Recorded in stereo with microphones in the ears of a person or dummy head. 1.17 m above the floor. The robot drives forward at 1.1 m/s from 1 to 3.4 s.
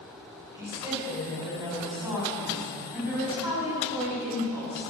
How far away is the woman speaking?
About 5.5 m.